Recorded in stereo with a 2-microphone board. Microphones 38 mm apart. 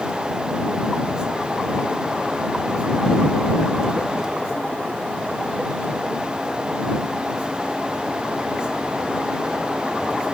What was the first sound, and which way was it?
Only background noise.